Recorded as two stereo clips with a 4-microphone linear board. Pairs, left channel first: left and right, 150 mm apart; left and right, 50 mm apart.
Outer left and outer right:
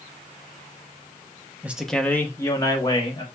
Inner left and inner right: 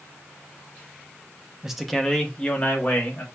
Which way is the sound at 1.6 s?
10° right (ahead or behind).